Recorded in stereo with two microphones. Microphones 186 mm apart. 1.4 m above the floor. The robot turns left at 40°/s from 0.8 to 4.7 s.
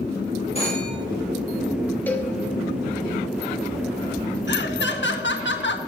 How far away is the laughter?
About 1.5 m.